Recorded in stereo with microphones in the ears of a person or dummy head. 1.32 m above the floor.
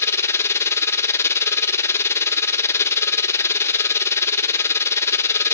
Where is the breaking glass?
No breaking glass in this recording.